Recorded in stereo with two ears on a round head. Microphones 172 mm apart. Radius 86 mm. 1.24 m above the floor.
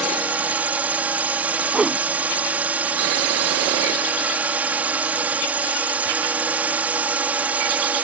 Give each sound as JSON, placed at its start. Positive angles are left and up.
{"t": 0.0, "sound": "a drone", "side_deg": -10}
{"t": 1.7, "sound": "a whoosh", "side_deg": -5}